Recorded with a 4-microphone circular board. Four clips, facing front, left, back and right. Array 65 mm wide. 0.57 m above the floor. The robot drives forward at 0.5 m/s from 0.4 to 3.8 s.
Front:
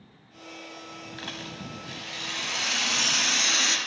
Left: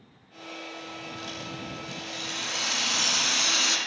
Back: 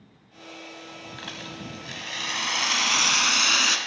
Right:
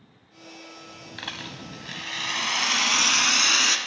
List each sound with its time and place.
1.2 s a rattle: 90° right, 0.8 m; by 3.8 s 150° right, 1.5 m